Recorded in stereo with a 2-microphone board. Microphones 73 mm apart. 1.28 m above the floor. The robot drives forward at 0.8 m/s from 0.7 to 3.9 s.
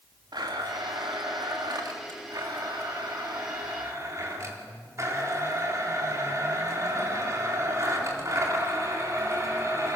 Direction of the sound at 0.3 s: 75° right (ahead or behind).